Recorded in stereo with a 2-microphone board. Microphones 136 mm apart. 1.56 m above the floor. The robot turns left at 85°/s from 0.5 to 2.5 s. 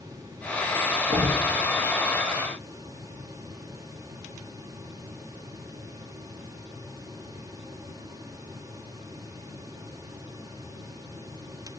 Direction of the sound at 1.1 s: 40° right (ahead or behind).